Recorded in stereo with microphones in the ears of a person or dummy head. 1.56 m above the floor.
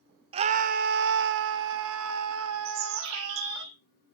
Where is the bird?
75° right (ahead or behind), 2.5 m.